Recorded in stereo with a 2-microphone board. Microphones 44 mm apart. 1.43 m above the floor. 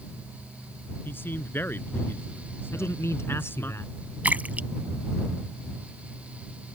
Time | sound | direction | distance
1.1 | a man speaking | 55° left (ahead or behind) | ?
2.7 | a man speaking | 80° left | ?
4.2 | a splash | 35° right (ahead or behind) | ?